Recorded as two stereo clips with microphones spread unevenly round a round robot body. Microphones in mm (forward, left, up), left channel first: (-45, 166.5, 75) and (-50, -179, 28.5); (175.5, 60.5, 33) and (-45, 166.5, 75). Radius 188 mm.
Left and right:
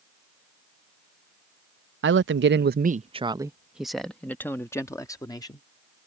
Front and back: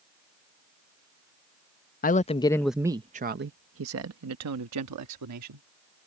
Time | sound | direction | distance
2.0 | a woman speaking | 55° right | ?